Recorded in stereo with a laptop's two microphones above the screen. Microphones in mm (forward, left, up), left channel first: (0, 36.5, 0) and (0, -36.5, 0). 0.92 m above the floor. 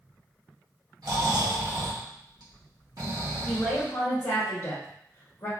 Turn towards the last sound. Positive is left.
turn(degrees=55)  # may be behind; listen again after turning